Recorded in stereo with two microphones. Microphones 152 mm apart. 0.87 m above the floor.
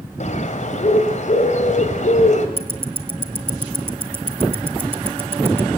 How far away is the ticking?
About 1.3 m.